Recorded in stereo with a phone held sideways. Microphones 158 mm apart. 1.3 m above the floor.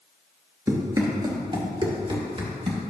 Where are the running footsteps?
20° right (ahead or behind), 1.3 m; by 2.8 s 40° right (ahead or behind), 1.9 m.